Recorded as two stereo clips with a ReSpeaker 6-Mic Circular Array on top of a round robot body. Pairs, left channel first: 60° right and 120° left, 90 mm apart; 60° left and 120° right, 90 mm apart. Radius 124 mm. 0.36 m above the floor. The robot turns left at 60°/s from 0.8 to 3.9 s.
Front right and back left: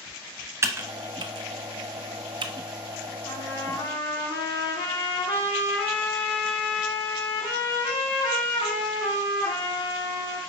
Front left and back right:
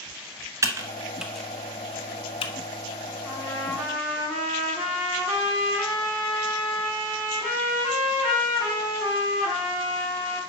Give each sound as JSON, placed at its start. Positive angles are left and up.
{"t": 0.6, "sound": "typing on a keyboard", "azimuth_deg": 180, "distance_m": 0.7}
{"t": 3.2, "sound": "a trumpet", "azimuth_deg": -20, "distance_m": 3.5}